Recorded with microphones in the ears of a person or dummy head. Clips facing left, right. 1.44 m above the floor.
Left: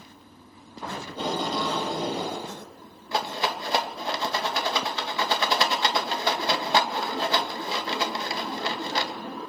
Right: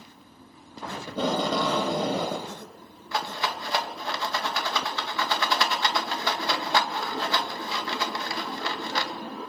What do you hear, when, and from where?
1.1 s tape being pulled: 60° right (ahead or behind), 2 m
3.1 s a rattle: 25° left (ahead or behind), 2 m